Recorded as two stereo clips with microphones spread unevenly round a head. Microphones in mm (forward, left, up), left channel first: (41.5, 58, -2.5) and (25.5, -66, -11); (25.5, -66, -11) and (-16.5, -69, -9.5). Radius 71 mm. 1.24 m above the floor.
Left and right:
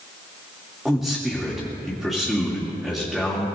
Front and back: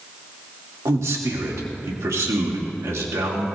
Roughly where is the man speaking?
Behind.